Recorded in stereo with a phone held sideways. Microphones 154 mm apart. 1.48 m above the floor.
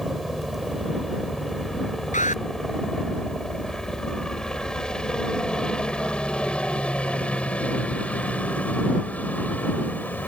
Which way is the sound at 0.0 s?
Centre (ahead or behind).